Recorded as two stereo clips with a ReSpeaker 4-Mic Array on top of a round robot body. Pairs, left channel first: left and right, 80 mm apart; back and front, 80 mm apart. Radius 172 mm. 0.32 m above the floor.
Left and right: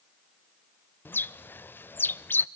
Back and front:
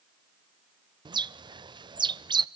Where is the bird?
25° left, 0.6 m.